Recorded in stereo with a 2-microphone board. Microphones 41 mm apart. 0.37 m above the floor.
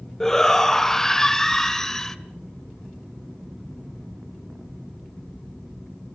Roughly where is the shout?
Centre.